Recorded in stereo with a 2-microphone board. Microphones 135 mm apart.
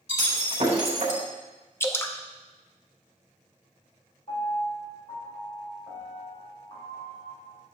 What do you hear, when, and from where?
0.1 s breaking glass: 55° right (ahead or behind), 3.5 m
1.8 s dripping: 20° left (ahead or behind), 0.8 m
4.3 s a piano: 45° left (ahead or behind), 4 m